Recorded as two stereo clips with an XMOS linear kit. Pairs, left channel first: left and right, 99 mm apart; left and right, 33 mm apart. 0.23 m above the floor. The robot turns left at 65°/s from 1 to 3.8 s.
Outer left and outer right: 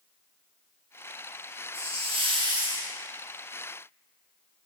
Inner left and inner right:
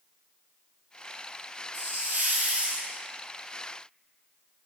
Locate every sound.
1.7 s a hiss: 85° right, 3 m; by 2.9 s 160° right, 3 m